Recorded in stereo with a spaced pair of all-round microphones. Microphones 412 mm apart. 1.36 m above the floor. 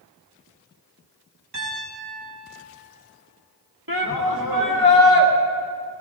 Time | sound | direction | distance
1.5 | a piano | 65° right (ahead or behind) | 5 m
3.9 | a shout | 60° right (ahead or behind) | 1.5 m